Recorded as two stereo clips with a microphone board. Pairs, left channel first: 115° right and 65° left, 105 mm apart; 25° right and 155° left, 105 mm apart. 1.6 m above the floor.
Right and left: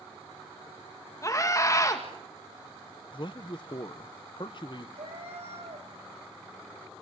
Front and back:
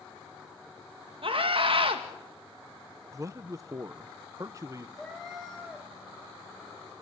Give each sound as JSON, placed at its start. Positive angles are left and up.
{"t": 1.2, "sound": "a scream", "azimuth_deg": -170, "distance_m": 2.0}
{"t": 3.1, "sound": "a man speaking", "azimuth_deg": -145, "distance_m": 0.8}
{"t": 5.0, "sound": "a cat meowing", "azimuth_deg": 65, "distance_m": 5.0}